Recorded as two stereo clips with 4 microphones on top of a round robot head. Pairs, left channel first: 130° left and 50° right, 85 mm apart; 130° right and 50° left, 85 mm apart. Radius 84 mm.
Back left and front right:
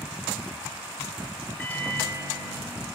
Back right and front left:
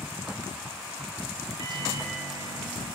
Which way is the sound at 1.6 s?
65° left.